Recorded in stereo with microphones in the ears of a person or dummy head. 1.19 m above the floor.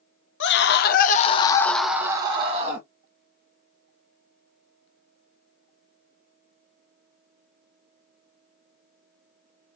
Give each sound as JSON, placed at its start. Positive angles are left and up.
{"t": 0.4, "sound": "a scream", "side_deg": 60, "distance_m": 1.0}